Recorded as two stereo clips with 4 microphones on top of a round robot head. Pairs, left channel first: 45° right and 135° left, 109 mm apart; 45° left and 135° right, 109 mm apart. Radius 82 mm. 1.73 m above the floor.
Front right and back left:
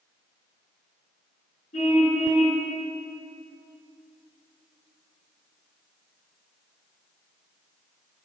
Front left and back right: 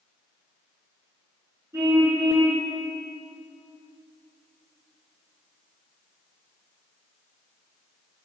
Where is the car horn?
70° right, 8.5 m.